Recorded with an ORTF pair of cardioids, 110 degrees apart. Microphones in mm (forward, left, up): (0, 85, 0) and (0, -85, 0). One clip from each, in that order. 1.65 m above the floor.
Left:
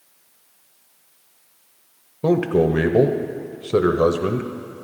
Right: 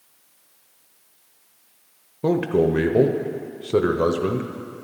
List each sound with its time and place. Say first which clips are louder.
2.2 s a man speaking: left 2 dB; 5° left, 0.7 m